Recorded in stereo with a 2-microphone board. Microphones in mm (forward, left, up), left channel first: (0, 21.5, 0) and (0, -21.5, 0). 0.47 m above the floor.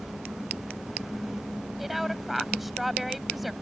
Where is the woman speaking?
5° right (ahead or behind).